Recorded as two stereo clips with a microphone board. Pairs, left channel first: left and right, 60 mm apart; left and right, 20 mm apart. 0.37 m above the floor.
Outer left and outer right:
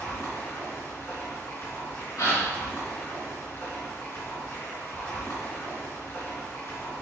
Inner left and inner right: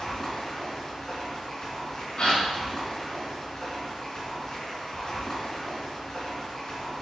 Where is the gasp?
70° left (ahead or behind), 4 m.